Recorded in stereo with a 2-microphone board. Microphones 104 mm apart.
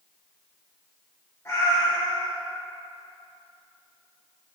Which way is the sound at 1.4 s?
25° left (ahead or behind).